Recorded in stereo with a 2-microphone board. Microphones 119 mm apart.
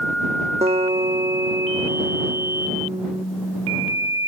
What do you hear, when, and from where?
0.6 s a guitar: 60° right (ahead or behind)